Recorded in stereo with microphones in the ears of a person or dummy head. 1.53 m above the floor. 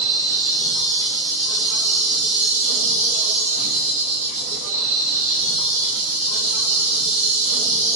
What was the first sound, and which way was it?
An insect, 40° right (ahead or behind).